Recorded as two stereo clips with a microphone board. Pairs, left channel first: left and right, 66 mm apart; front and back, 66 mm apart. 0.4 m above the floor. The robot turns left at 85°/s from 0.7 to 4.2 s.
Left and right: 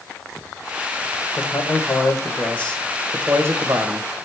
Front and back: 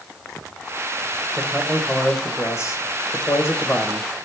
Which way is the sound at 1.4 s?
135° left.